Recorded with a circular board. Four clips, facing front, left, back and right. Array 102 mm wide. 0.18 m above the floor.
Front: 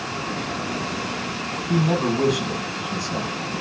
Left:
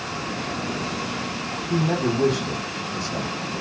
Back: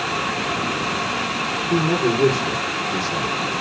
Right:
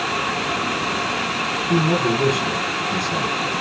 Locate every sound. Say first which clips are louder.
1.7 s a man speaking: right 3 dB, back 2 dB; 40° right, 4 m